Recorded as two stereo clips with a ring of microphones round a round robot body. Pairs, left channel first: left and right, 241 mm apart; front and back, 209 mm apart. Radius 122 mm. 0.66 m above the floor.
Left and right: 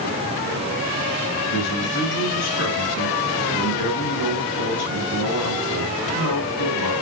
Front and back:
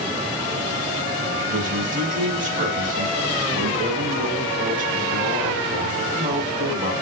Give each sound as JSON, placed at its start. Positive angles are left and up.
{"t": 1.5, "sound": "a man speaking", "azimuth_deg": 130, "distance_m": 4.0}